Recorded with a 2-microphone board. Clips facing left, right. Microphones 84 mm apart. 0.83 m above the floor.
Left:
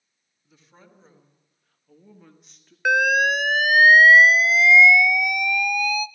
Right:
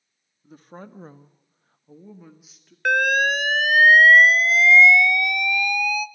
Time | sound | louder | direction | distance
0.4 | a woman speaking | right 12 dB | 50° right (ahead or behind) | 1.8 m
2.9 | an alarm | left 1 dB | 5° left (ahead or behind) | 0.6 m